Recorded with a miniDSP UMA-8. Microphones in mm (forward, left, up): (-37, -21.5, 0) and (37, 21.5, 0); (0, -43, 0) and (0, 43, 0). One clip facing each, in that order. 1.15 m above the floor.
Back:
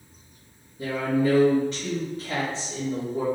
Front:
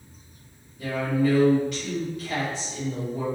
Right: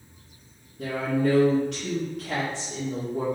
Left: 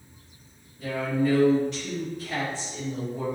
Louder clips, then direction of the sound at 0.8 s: Even, right 1 dB; 95° right.